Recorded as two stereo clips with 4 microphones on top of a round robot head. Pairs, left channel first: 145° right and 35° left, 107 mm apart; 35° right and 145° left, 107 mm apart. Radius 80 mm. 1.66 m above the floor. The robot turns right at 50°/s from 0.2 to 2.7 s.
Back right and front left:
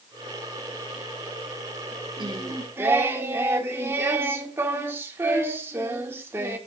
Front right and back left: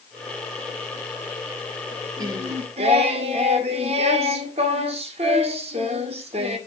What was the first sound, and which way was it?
Singing, 80° left.